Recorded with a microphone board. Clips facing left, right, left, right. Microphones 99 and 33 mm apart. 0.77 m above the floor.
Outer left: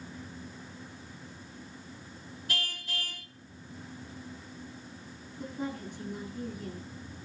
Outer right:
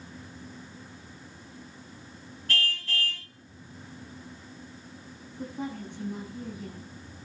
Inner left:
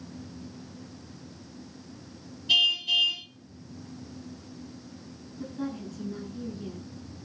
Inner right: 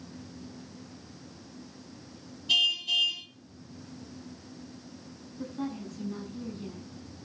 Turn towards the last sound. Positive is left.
turn(degrees=-80)